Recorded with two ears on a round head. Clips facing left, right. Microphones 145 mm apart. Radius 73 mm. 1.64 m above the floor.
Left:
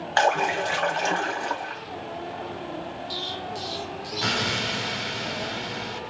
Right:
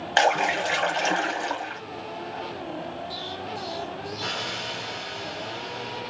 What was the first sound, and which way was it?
A splash, 20° right (ahead or behind).